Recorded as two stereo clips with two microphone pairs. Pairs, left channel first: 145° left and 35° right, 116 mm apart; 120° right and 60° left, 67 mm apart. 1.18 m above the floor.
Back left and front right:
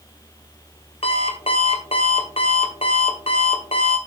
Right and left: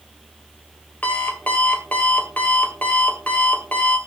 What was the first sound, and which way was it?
An alarm clock, 170° left.